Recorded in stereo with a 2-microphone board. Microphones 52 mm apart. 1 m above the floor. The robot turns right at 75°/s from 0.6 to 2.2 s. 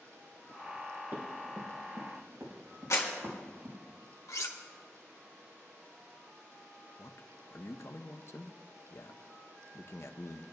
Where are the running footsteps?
45° right (ahead or behind), 3.5 m; by 3.8 s 50° right (ahead or behind), 6.5 m.